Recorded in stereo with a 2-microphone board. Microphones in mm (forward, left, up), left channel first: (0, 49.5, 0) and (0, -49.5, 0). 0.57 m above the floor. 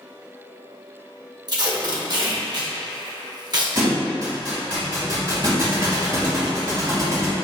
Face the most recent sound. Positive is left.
turn(degrees=-40)  # may be behind; listen again after turning